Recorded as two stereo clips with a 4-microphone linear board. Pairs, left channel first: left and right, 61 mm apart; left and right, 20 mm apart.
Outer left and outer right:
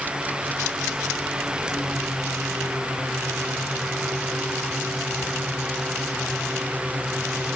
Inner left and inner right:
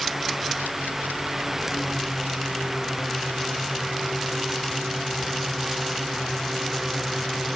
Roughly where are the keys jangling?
I don't hear keys jangling.